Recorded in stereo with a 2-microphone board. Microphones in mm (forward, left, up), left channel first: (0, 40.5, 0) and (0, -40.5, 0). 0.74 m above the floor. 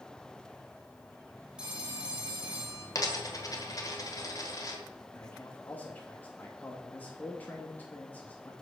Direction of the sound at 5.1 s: 20° left (ahead or behind).